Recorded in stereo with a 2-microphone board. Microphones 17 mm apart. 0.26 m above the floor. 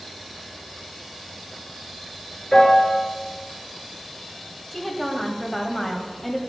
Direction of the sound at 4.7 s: 20° left (ahead or behind).